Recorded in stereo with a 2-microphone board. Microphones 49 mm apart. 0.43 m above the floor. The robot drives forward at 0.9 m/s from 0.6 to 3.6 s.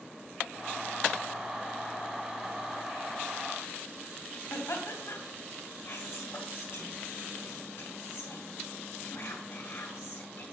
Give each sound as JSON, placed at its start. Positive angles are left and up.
{"t": 4.5, "sound": "laughter", "side_deg": 60, "distance_m": 3.0}
{"t": 5.8, "sound": "whispering", "side_deg": 55, "distance_m": 2.5}